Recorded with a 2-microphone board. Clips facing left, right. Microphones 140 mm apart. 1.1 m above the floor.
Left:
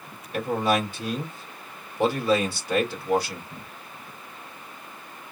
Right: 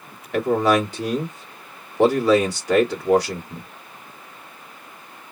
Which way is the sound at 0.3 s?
90° right.